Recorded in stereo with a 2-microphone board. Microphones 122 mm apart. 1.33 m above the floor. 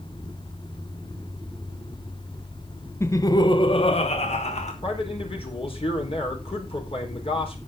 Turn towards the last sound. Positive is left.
turn(degrees=50)  # may be behind; listen again after turning